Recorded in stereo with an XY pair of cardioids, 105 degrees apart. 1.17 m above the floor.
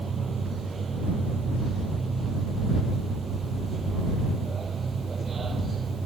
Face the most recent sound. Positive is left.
turn(degrees=-35)